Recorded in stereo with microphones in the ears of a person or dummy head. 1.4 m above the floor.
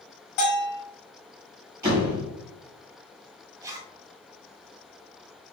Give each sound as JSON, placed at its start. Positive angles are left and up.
{"t": 0.4, "sound": "a bell", "side_deg": 55, "distance_m": 1.7}
{"t": 1.8, "sound": "a door slam", "side_deg": -15, "distance_m": 1.6}
{"t": 3.6, "sound": "a zipper", "side_deg": -10, "distance_m": 0.7}